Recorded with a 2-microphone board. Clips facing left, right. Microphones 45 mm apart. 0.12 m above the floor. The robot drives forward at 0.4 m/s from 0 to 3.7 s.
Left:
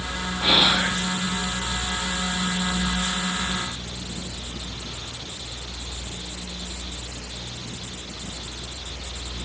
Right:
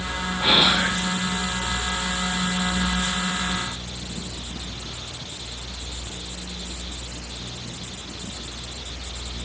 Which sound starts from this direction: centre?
Whispering, at 0.4 s.